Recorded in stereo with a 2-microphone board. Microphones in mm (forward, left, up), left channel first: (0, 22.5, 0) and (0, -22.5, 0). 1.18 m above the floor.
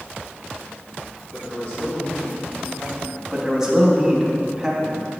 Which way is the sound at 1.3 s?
40° left (ahead or behind).